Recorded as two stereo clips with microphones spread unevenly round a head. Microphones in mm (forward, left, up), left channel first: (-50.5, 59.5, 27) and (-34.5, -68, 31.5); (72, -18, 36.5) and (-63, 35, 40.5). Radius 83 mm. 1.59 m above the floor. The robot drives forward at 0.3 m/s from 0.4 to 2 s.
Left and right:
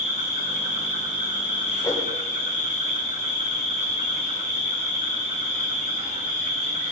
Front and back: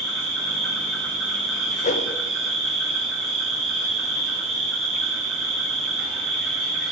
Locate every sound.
0.0 s an insect: 100° right, 4 m; by 6.9 s 105° right, 4 m
1.8 s a whoosh: 20° left, 0.5 m; by 2.1 s 25° left, 0.5 m